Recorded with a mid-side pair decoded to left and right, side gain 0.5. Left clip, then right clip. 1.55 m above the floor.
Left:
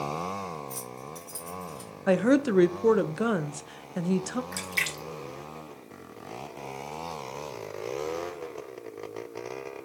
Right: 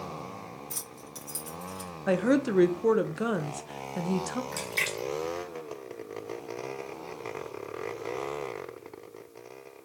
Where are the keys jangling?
45° right, 1.4 m; by 1.9 s 30° right, 1.9 m.